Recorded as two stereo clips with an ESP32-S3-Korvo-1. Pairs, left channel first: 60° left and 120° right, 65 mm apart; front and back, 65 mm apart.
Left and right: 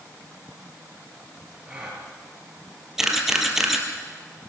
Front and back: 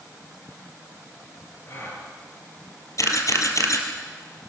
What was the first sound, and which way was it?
A gasp, 45° right.